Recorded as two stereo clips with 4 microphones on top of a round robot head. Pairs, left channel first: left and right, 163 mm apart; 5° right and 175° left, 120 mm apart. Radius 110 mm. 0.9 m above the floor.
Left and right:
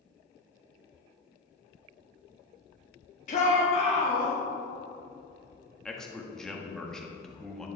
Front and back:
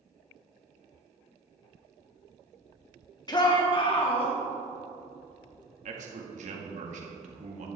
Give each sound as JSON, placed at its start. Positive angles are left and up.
{"t": 3.3, "sound": "a shout", "azimuth_deg": 45, "distance_m": 2.0}
{"t": 5.8, "sound": "a man speaking", "azimuth_deg": 175, "distance_m": 1.7}